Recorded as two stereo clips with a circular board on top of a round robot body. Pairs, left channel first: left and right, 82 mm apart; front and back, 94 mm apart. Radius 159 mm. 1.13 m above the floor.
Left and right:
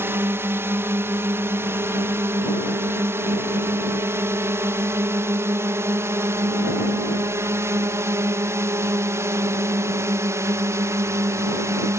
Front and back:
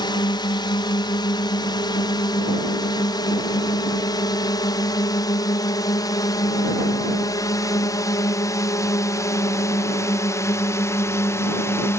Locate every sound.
0.0 s a drone: 30° right; by 12.0 s 50° right